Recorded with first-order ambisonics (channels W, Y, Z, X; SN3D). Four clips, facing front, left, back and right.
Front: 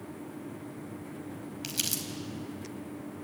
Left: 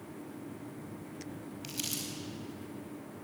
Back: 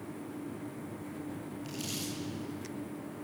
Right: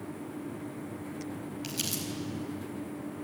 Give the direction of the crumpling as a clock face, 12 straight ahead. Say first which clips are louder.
Right 3 dB, front 6 dB; 12 o'clock.